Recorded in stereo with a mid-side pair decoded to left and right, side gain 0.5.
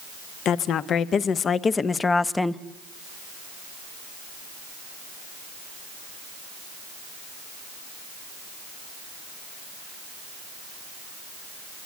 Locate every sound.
0.5 s a woman speaking: 65° left, 1.4 m; by 2.6 s 5° left, 0.9 m